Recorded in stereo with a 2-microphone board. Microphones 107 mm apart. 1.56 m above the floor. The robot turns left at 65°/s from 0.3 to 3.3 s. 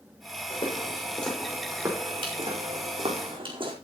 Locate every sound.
0.5 s footsteps: 55° left (ahead or behind), 6.5 m; by 3.8 s 50° right (ahead or behind), 4.5 m